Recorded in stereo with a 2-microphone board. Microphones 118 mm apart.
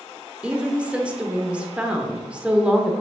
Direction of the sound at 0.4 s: 10° right (ahead or behind).